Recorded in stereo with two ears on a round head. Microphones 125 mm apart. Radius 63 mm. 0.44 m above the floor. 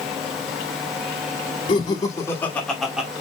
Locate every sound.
1.7 s laughter: 35° left (ahead or behind), 1.5 m; by 3.1 s 10° right (ahead or behind), 1.3 m